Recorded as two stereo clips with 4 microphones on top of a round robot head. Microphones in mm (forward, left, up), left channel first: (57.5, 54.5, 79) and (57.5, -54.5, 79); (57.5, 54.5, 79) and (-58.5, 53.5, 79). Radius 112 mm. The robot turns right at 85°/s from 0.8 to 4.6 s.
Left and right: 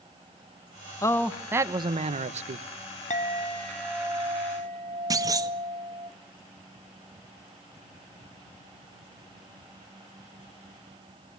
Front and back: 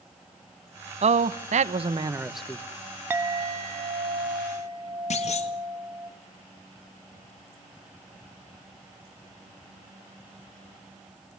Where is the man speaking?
155° left, 1.3 m; by 2.6 s 70° right, 1.3 m.